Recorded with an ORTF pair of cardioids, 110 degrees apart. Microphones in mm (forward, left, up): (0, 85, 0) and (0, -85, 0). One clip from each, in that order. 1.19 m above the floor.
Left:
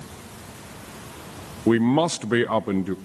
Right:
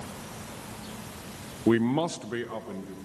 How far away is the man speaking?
About 0.5 m.